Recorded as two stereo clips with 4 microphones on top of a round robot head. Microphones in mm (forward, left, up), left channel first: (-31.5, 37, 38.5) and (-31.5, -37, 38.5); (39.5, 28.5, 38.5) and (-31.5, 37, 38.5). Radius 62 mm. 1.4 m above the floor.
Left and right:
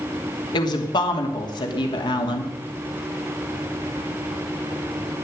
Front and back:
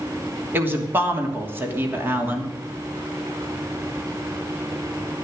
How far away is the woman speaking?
About 2.5 m.